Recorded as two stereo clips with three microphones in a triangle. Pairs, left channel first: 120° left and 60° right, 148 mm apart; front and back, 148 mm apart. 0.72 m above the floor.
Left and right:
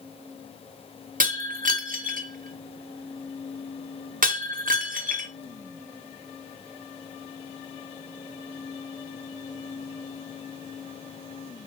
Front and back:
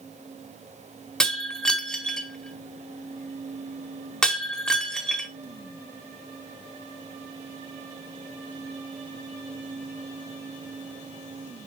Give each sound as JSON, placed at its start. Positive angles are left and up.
{"t": 1.2, "sound": "breaking glass", "azimuth_deg": -85, "distance_m": 1.2}